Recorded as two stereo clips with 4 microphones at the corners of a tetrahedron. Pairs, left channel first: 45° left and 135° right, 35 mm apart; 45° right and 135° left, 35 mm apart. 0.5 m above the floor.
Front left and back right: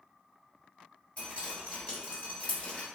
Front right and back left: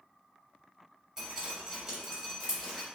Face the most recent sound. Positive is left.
turn(degrees=70)